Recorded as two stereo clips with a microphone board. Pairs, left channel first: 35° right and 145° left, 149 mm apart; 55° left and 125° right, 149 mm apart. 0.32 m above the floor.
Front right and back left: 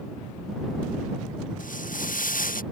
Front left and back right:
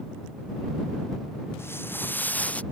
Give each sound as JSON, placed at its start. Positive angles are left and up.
{"t": 1.6, "sound": "footsteps", "azimuth_deg": -20}